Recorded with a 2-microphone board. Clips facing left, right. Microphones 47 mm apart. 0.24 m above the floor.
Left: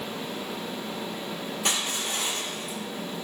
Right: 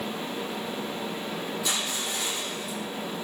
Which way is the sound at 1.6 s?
60° left (ahead or behind).